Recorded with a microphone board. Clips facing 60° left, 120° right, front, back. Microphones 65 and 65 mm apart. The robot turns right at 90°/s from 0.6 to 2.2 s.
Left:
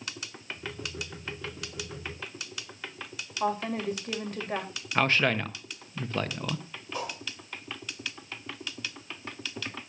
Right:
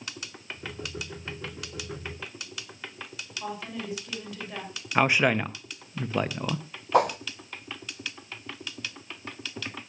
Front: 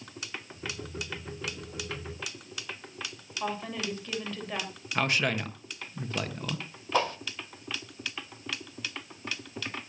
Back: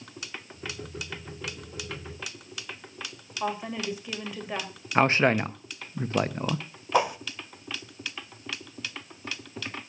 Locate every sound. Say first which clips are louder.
3.4 s a woman speaking: left 7 dB, back 3 dB; 100° left, 4 m
5.0 s a man speaking: right 3 dB, back 7 dB; 175° left, 1.0 m
6.9 s a whoosh: right 14 dB, back 4 dB; 105° right, 1.0 m